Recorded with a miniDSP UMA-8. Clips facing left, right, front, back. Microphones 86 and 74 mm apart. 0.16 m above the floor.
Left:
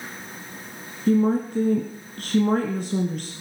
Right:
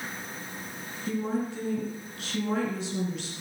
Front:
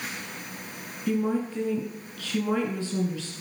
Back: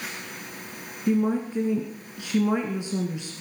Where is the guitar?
I don't hear a guitar.